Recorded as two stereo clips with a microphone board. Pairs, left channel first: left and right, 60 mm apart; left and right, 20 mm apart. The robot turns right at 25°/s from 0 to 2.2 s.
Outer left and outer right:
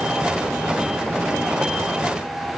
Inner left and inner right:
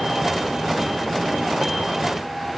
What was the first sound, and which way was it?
Only background noise.